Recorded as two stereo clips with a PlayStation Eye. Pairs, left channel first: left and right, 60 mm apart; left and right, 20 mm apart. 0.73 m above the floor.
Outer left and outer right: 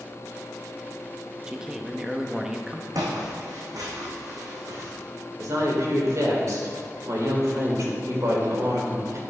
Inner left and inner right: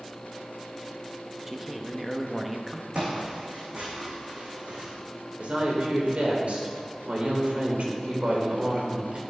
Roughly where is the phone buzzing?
I don't hear a phone buzzing.